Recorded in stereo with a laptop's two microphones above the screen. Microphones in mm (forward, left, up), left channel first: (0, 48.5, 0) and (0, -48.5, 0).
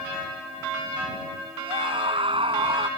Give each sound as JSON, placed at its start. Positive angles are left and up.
{"t": 1.6, "sound": "a scream", "side_deg": -70}